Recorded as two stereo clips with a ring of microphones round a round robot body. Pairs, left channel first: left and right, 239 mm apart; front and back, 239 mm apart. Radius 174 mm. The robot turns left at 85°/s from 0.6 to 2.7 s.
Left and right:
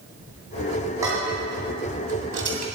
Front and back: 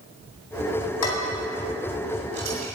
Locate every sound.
1.0 s dishes clattering: 10° right, 2.5 m; by 2.6 s 145° right, 2.5 m